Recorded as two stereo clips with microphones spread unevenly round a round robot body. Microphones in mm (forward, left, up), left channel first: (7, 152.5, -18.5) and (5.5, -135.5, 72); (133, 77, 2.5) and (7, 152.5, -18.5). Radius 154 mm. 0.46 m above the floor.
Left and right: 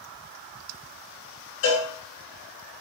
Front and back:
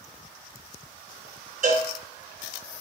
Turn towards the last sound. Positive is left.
turn(degrees=125)